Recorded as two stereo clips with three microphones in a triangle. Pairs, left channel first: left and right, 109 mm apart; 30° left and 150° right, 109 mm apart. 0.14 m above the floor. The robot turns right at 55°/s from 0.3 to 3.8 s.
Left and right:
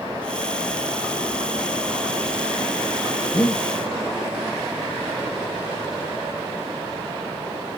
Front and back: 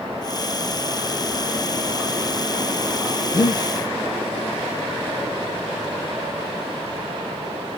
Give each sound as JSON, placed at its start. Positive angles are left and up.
{"t": 3.3, "sound": "breathing", "azimuth_deg": 55, "distance_m": 2.5}